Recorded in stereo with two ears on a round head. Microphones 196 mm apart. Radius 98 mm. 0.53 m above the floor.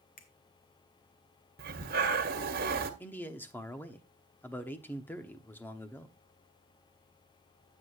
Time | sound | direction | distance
0.2 | a finger snap | 40° left (ahead or behind) | 1.9 m
1.6 | breathing | 45° right (ahead or behind) | 1.5 m
3.0 | a man speaking | 10° left (ahead or behind) | 0.9 m